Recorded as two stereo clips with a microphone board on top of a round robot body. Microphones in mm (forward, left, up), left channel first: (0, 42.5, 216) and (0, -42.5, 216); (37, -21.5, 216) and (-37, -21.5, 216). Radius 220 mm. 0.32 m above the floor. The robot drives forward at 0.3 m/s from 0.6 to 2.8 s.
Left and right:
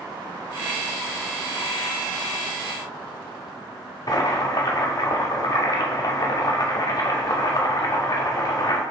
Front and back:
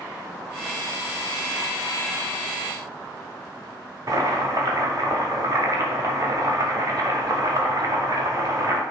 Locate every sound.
4.1 s boiling: 135° left, 0.6 m